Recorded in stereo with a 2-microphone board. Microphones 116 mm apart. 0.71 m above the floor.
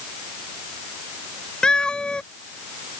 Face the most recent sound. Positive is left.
turn(degrees=10)  # may be behind; listen again after turning